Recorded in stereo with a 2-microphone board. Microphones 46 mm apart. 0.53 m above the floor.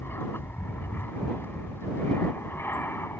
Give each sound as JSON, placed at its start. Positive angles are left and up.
{"t": 0.0, "sound": "an aircraft", "side_deg": 60}